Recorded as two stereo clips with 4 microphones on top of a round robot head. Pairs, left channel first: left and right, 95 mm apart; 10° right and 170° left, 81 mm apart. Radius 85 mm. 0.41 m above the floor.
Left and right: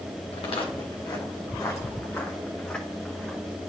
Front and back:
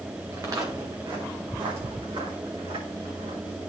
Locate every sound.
0.3 s footsteps: 115° left, 1.8 m; by 3.4 s 175° left, 3 m